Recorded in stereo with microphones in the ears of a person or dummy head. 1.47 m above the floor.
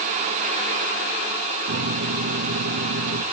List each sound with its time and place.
1.7 s a microwave: 50° right (ahead or behind), 0.8 m